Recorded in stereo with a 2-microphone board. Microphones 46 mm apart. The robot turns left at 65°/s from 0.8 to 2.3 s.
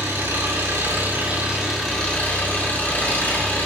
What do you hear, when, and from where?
0.0 s an engine running: 115° right, 5.5 m; by 3.7 s 145° left, 5.5 m